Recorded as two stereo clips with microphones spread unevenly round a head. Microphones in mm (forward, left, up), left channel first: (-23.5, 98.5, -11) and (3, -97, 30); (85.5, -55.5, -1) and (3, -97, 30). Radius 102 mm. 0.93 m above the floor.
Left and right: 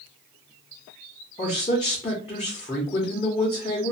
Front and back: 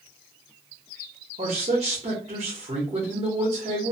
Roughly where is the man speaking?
Behind left.